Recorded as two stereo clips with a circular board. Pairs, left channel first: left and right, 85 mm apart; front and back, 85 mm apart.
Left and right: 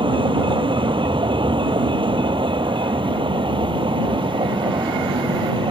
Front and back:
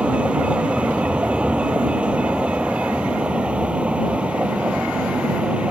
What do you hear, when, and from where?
0.0 s a vehicle: 105° right